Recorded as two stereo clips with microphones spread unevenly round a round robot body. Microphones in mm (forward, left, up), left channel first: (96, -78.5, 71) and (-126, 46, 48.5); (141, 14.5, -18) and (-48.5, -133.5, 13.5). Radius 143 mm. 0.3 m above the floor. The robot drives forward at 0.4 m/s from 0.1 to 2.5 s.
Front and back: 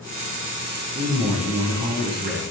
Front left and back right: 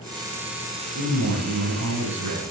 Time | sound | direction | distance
0.9 | a man speaking | 160° right | 6 m